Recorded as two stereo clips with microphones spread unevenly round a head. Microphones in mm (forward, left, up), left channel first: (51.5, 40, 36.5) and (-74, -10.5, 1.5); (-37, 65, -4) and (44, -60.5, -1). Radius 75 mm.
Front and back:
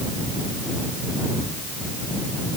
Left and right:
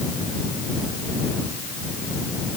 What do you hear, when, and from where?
Only background noise.